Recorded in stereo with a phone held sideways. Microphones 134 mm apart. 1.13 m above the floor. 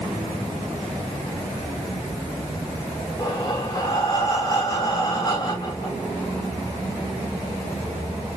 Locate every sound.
3.2 s breathing: 30° left (ahead or behind), 0.8 m